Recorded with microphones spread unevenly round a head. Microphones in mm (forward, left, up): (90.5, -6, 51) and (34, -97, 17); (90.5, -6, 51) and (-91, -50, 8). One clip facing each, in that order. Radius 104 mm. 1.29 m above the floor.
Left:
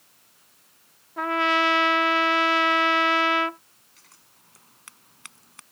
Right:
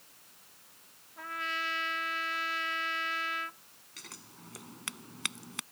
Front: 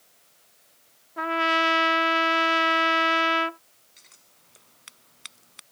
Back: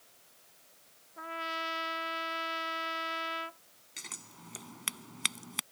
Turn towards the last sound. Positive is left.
turn(degrees=-175)